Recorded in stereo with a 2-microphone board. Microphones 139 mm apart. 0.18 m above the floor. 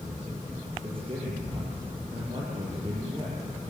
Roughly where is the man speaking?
Right.